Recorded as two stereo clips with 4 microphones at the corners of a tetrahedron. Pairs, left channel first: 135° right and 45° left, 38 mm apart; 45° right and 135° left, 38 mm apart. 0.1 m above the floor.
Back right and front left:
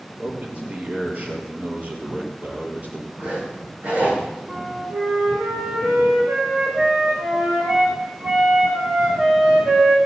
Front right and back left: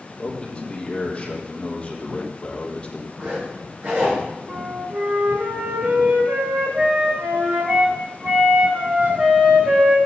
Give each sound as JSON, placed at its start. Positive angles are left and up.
{"t": 0.2, "sound": "a man speaking", "azimuth_deg": 15, "distance_m": 3.5}
{"t": 3.2, "sound": "a zipper", "azimuth_deg": 90, "distance_m": 9.0}
{"t": 4.5, "sound": "a flute", "azimuth_deg": 85, "distance_m": 4.5}